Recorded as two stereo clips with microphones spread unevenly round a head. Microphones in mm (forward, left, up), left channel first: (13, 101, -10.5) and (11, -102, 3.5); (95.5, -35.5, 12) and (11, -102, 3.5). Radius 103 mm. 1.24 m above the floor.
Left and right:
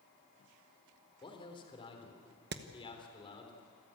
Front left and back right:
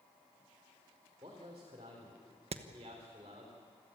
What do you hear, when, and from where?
1.2 s a man speaking: 155° left, 3.5 m
2.5 s hammering: 130° right, 1.1 m